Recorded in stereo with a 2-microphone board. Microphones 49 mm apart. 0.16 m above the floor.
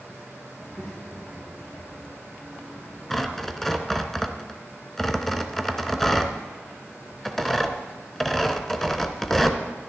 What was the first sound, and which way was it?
A child speaking, 30° left (ahead or behind).